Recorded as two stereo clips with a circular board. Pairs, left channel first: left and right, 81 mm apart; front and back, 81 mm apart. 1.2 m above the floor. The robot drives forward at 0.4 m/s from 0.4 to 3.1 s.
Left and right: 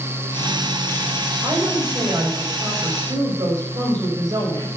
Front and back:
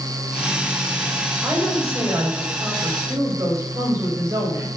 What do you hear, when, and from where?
1.4 s a woman speaking: 120° right, 5 m; by 4.7 s 130° right, 5.5 m